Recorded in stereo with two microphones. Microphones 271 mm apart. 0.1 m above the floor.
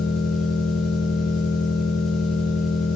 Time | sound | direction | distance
0.0 | an engine running | 80° left | 8 m